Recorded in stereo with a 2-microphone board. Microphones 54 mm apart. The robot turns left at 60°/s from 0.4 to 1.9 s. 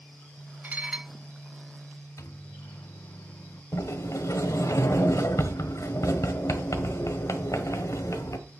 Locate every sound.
0.6 s dishes clattering: 35° right (ahead or behind), 0.6 m; by 1.1 s 10° right (ahead or behind), 0.6 m
2.2 s a microwave: 70° left (ahead or behind), 0.8 m
3.7 s a sliding door: 75° left (ahead or behind), 1.4 m